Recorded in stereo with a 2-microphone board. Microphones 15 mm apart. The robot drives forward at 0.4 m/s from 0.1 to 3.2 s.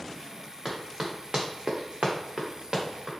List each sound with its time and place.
0.7 s running footsteps: 25° right (ahead or behind), 1.5 m; by 3.1 s 35° right (ahead or behind), 1.6 m